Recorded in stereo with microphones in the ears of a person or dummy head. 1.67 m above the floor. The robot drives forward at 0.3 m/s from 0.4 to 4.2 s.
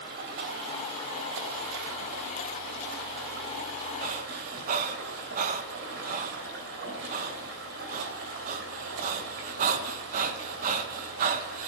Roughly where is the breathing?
Right.